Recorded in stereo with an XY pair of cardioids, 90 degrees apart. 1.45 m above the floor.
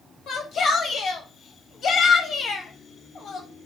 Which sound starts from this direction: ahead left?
A shout, at 0.3 s.